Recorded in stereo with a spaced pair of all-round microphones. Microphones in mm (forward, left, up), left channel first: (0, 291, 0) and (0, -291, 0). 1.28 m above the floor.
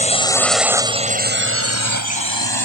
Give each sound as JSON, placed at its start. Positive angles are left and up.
{"t": 0.0, "sound": "a drone", "side_deg": 10}